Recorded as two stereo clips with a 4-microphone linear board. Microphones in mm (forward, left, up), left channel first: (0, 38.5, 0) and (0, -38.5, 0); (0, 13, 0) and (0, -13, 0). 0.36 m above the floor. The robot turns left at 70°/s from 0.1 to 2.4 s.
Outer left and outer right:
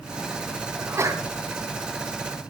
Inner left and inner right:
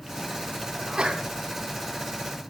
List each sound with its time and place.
0.8 s a sneeze: 25° right, 3 m; by 1.2 s 60° right, 3 m